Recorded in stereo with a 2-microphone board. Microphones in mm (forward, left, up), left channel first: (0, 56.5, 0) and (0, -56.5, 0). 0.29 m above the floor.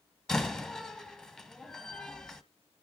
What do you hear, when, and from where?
0.3 s a door slam: 5° left (ahead or behind), 1.3 m